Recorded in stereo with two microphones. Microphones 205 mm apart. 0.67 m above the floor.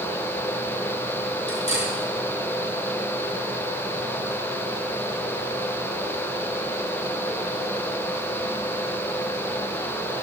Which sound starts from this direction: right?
Cutlery clinking, at 1.5 s.